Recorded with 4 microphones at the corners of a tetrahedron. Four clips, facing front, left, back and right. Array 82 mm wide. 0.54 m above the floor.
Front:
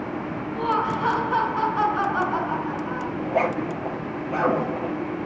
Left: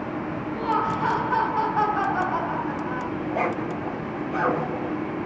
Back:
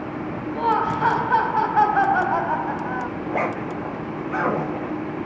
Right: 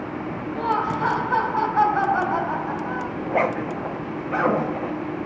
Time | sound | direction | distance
0.6 | laughter | 165° right | 3.5 m
3.2 | a zipper | 125° right | 5.5 m